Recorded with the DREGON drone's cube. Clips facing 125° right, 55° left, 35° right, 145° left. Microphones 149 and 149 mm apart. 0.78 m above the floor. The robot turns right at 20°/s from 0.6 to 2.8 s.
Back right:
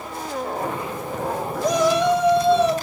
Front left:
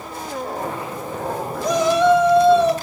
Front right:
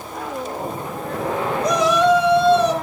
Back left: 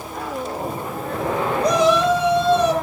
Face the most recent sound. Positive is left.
turn(degrees=-135)